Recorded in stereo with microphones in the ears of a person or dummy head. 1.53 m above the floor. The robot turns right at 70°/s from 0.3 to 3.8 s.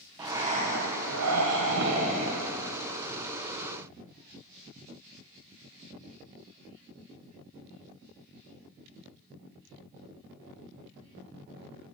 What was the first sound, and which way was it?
Breathing, 160° right.